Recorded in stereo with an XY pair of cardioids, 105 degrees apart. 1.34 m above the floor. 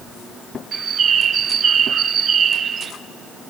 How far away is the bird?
About 1.0 m.